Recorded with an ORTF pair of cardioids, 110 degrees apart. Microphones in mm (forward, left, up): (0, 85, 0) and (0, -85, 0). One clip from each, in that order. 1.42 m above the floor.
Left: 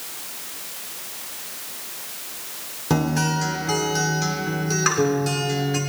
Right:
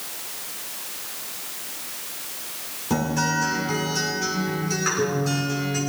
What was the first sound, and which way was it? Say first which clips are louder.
A guitar: left 1 dB; 45° left.